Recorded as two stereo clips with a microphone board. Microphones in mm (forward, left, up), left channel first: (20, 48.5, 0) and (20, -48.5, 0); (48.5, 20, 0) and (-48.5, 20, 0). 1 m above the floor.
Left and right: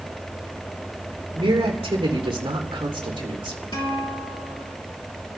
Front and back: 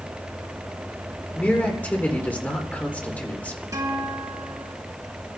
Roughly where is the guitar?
Behind left.